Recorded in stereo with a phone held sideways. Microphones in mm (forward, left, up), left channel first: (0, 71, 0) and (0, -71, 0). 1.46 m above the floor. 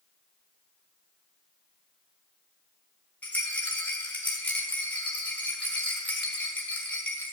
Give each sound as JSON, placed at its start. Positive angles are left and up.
{"t": 3.2, "sound": "a rattle", "side_deg": 10, "distance_m": 5.0}